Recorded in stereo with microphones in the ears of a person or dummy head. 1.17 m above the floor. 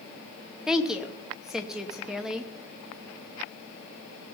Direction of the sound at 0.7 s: Centre (ahead or behind).